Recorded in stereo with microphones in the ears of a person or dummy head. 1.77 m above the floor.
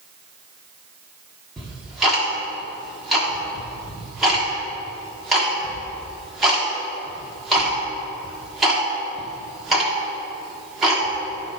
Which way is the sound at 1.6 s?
5° right (ahead or behind).